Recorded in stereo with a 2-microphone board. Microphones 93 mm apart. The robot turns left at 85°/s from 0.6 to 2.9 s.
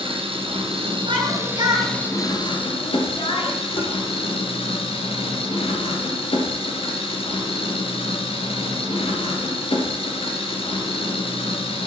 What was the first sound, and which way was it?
An engine running, 80° right.